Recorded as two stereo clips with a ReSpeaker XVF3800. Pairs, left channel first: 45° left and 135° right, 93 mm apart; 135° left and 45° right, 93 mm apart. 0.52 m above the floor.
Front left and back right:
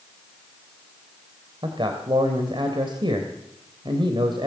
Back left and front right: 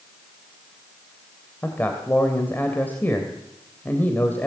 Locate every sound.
1.6 s a man speaking: 155° right, 3 m